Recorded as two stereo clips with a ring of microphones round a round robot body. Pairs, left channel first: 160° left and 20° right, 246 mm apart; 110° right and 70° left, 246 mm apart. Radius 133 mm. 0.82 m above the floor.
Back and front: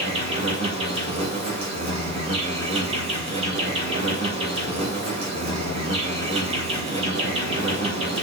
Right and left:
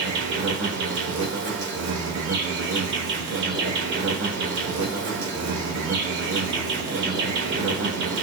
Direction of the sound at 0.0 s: 40° left.